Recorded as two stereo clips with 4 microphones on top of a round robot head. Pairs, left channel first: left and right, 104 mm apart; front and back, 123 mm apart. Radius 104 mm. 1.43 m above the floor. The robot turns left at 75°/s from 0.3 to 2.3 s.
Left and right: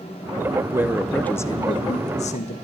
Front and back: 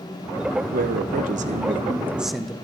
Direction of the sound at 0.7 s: 155° right.